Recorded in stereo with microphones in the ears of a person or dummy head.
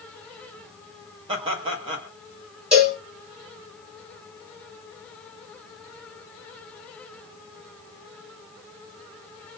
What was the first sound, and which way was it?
Laughter, 35° right (ahead or behind).